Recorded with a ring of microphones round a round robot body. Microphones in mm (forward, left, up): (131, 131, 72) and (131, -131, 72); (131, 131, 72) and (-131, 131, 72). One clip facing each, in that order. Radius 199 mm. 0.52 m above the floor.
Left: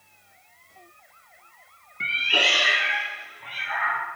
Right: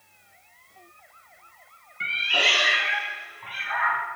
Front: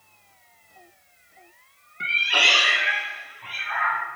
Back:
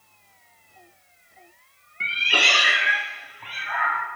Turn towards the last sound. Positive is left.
turn(degrees=175)